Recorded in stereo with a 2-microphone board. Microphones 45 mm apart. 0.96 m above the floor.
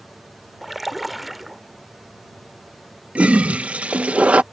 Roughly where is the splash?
Centre.